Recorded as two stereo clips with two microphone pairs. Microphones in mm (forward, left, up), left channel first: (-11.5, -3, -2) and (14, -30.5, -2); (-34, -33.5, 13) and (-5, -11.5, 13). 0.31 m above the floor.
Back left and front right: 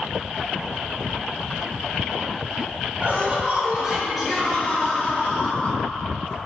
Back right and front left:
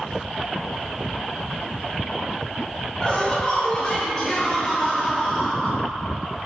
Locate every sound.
3.0 s laughter: 90° right, 1.3 m; by 5.9 s 130° left, 1.3 m